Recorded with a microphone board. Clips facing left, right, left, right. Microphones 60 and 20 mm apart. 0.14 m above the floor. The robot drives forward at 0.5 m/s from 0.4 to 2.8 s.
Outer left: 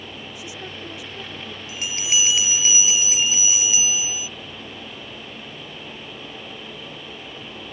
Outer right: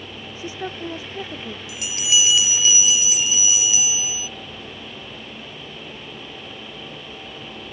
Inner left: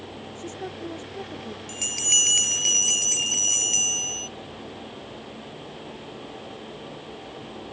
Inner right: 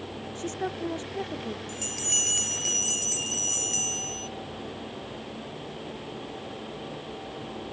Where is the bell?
40° left (ahead or behind); by 4.3 s 35° left (ahead or behind).